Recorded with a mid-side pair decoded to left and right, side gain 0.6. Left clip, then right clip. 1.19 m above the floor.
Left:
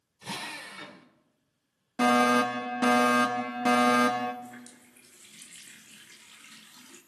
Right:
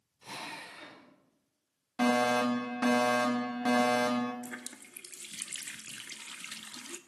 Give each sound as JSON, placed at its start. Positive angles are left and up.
{"t": 0.2, "sound": "a drill", "azimuth_deg": 40, "distance_m": 3.0}
{"t": 2.0, "sound": "a fire alarm", "azimuth_deg": 30, "distance_m": 3.0}
{"t": 4.4, "sound": "a running tap", "azimuth_deg": -50, "distance_m": 1.2}